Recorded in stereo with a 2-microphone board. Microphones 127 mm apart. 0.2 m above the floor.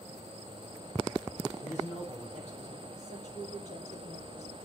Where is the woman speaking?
60° left (ahead or behind), 6.5 m.